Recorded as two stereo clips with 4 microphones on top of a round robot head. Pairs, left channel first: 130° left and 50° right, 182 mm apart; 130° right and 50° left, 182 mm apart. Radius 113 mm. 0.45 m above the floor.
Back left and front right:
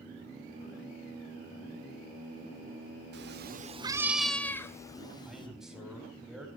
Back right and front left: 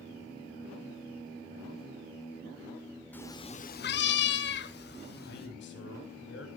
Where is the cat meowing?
50° right, 0.8 m; by 5.5 s 165° right, 2.0 m.